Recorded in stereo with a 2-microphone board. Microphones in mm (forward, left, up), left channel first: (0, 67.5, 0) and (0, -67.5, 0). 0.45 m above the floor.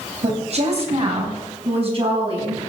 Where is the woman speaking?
55° right (ahead or behind), 3.5 m; by 2.7 s 45° right (ahead or behind), 5 m.